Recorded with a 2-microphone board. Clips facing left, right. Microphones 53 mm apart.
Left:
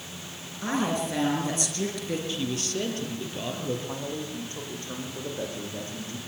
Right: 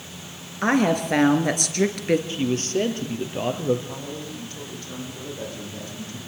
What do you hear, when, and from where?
0.6 s a woman speaking: 60° right (ahead or behind), 4 m
2.3 s a man speaking: 35° right (ahead or behind), 4 m
3.9 s a man speaking: 30° left (ahead or behind), 10 m